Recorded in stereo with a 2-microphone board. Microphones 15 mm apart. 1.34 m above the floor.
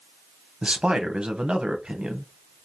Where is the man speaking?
80° right, 0.9 m.